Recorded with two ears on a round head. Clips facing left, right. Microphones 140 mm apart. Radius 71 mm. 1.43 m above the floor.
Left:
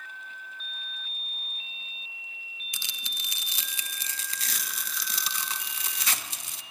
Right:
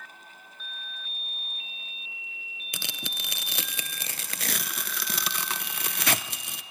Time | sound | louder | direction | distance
2.7 | tearing paper | right 9 dB | 50° right (ahead or behind) | 0.7 m